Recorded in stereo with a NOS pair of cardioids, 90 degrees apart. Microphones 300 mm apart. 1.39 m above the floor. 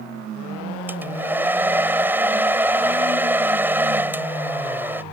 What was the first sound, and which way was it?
A hair dryer, 5° right.